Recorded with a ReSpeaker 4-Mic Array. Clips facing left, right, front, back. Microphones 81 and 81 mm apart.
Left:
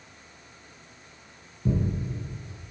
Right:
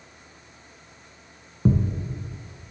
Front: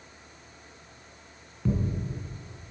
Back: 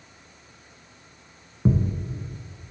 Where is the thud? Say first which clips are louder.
Right 4 dB, back 5 dB; 120° right, 1.5 m.